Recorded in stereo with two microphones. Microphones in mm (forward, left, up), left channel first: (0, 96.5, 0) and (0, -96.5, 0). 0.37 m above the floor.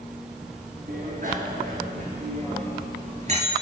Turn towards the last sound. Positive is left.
turn(degrees=-35)  # may be behind; listen again after turning